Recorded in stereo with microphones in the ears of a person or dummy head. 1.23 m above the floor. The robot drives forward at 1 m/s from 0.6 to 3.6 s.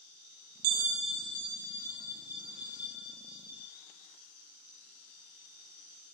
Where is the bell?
60° right (ahead or behind), 0.6 m; by 3.7 s 10° right (ahead or behind), 3.5 m.